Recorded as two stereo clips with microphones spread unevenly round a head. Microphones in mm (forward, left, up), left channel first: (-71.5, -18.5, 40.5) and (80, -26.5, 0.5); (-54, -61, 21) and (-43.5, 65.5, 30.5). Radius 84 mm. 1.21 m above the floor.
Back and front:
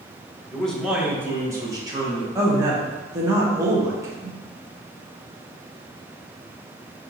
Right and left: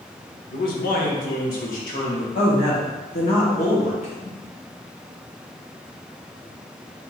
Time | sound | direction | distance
0.5 | a man speaking | 105° right | 0.9 m
2.4 | a woman speaking | 65° right | 1.1 m